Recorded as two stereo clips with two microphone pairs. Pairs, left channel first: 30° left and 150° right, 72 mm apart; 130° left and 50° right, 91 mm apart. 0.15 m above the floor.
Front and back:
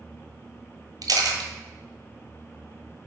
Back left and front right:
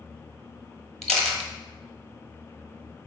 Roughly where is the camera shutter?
Behind right.